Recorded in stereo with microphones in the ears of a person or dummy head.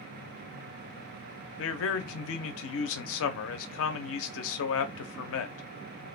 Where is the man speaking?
75° left (ahead or behind), 0.6 m.